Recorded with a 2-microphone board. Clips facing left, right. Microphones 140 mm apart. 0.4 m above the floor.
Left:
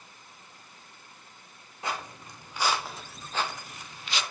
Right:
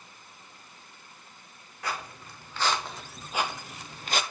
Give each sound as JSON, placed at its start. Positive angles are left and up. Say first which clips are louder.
{"t": 1.8, "sound": "footsteps", "louder": "left 1 dB", "side_deg": 25, "distance_m": 1.3}